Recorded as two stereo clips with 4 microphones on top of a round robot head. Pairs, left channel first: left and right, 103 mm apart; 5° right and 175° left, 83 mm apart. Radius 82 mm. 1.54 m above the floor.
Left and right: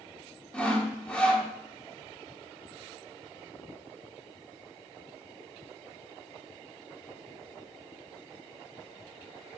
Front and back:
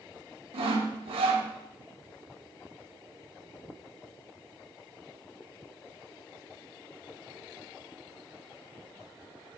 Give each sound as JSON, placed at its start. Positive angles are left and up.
{"t": 0.5, "sound": "sawing", "azimuth_deg": 170, "distance_m": 1.0}